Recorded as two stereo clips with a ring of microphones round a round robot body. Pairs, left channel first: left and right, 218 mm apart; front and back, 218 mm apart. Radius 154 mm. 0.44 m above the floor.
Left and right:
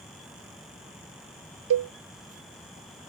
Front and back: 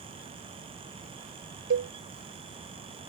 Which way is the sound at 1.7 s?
125° right.